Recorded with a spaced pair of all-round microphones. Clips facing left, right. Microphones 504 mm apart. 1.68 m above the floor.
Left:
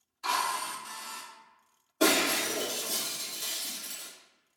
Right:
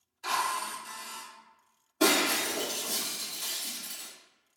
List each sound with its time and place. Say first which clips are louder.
0.2 s a drill: even; 25° left (ahead or behind), 0.5 m
2.0 s breaking glass: even; 20° right (ahead or behind), 1.2 m